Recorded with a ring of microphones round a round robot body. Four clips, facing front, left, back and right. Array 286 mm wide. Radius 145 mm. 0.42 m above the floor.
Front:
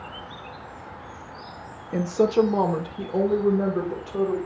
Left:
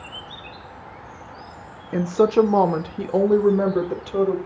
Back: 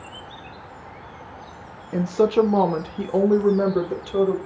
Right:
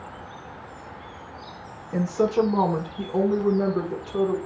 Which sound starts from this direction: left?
A woman speaking, at 1.9 s.